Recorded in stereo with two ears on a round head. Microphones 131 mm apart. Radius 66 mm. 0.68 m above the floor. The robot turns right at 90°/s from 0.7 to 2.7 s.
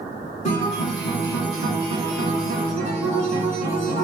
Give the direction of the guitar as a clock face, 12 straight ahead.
8 o'clock.